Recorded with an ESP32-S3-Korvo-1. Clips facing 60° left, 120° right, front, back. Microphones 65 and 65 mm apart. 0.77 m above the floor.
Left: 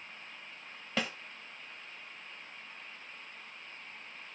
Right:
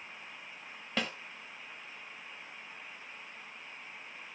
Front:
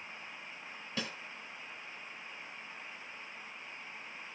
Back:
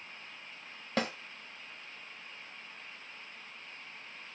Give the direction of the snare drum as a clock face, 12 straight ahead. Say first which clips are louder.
Even, back 8 dB; 7 o'clock.